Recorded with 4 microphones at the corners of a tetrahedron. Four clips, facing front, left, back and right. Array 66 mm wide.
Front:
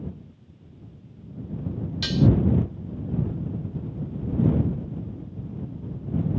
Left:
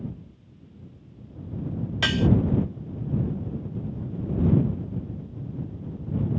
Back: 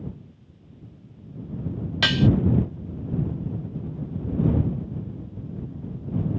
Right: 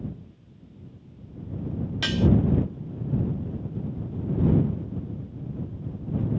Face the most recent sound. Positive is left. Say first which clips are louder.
# left 1 dB, back 2 dB
turn(degrees=150)